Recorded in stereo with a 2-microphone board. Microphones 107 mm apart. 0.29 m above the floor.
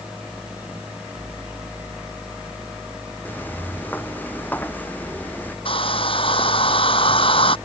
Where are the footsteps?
15° left (ahead or behind).